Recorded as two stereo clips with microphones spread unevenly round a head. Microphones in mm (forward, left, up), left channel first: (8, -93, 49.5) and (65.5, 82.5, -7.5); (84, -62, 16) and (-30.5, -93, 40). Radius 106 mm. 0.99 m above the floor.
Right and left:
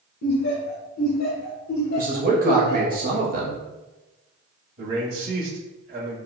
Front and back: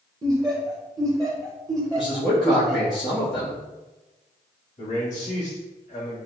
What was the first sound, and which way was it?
Laughter, 100° right.